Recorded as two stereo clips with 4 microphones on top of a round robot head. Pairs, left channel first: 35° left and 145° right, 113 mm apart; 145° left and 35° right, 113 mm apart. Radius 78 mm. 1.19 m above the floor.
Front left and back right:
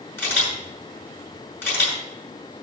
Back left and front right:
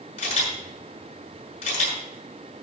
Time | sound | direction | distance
0.2 | a camera shutter | 105° left | 6.5 m